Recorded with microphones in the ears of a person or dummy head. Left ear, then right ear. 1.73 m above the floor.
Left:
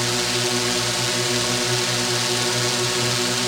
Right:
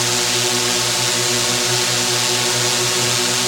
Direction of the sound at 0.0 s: 15° right (ahead or behind).